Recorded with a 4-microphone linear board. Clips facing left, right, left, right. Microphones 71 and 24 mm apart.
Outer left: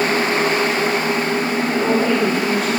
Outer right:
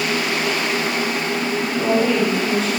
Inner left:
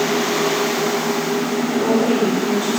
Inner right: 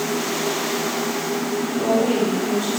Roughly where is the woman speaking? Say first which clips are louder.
Even, inner left 2 dB; centre.